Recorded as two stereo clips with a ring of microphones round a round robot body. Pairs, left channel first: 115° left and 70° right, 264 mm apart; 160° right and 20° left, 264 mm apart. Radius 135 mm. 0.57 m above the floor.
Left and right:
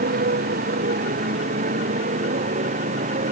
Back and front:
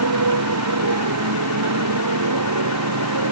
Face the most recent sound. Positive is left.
turn(degrees=-5)